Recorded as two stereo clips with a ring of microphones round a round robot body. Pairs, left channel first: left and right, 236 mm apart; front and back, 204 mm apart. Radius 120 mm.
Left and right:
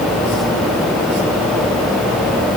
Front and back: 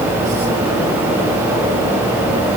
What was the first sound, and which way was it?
Only background noise.